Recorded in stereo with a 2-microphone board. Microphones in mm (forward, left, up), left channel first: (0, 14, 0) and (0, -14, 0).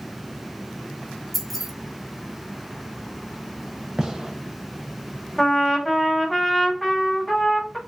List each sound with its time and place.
1.3 s keys jangling: centre (ahead or behind), 0.7 m
4.0 s a gunshot: 20° right (ahead or behind), 0.6 m
5.4 s a trumpet: 10° left (ahead or behind), 1.0 m